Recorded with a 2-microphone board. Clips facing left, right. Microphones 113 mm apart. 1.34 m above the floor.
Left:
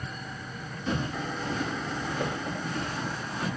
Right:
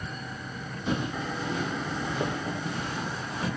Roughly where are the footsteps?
Centre.